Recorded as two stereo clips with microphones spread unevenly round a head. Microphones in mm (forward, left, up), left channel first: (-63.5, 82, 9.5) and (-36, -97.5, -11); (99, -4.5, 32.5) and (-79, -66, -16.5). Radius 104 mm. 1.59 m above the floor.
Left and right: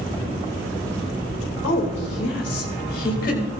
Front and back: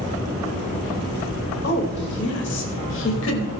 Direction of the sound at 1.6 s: 60° left.